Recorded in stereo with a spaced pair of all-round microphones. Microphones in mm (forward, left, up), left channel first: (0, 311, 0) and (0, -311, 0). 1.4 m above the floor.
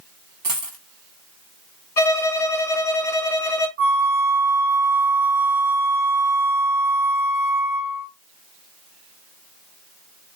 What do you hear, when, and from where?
0.4 s a dropped coin: 35° right (ahead or behind), 0.9 m
2.0 s a violin: 70° left (ahead or behind), 1.1 m
3.8 s a flute: 60° right (ahead or behind), 1.1 m